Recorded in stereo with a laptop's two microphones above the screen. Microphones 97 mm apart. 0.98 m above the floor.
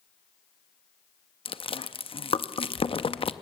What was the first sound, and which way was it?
Chewing, 70° left (ahead or behind).